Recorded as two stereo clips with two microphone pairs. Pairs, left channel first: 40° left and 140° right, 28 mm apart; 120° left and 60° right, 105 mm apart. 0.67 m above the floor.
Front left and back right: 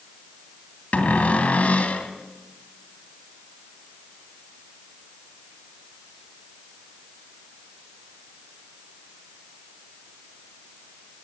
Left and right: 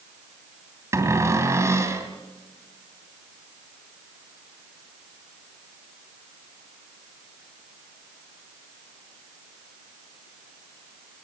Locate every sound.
0.9 s a cupboard door: 5° left, 2.5 m